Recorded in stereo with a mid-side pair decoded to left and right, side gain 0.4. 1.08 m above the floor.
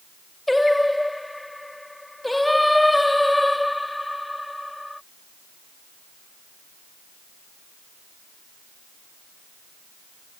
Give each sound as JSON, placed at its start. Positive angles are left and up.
{"t": 0.5, "sound": "singing", "azimuth_deg": 10}